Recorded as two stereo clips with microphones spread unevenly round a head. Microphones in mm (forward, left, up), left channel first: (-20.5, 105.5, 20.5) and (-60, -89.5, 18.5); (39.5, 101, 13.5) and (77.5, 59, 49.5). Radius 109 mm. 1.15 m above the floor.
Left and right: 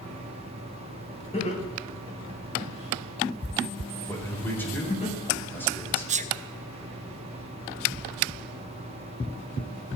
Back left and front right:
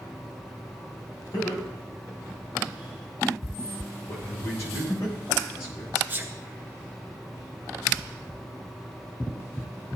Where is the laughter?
135° left, 4 m.